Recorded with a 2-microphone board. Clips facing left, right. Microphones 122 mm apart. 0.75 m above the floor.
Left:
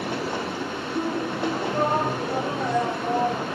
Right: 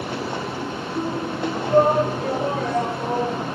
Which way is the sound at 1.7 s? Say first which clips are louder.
Right 10 dB; 80° right.